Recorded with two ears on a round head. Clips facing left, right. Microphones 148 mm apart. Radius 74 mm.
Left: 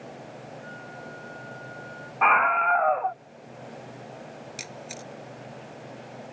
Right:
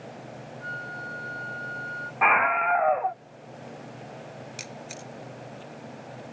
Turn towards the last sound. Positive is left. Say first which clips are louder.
# even
turn(degrees=5)  # may be behind; listen again after turning